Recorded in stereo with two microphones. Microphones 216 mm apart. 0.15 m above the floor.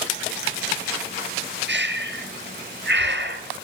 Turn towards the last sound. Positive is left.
turn(degrees=-55)  # may be behind; listen again after turning